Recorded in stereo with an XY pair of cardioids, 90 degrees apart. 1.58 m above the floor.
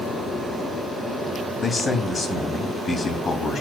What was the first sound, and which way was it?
A man speaking, 30° left.